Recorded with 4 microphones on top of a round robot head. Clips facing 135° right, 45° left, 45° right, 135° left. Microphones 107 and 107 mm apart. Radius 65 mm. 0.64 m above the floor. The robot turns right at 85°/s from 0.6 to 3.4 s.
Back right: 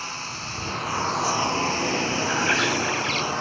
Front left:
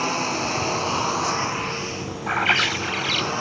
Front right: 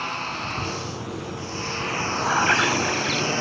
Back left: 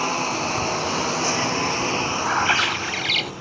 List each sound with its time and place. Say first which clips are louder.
0.0 s a lawn mower: front left 11 dB, back left 6 dB; 80° left; by 3.4 s 40° right
2.3 s a bird: front left 4 dB, front right 3 dB; 40° left; by 3.3 s 130° left